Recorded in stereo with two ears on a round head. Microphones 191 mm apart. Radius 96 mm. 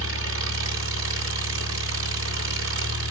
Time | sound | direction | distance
0.0 | an engine running | 65° right (ahead or behind) | 1.8 m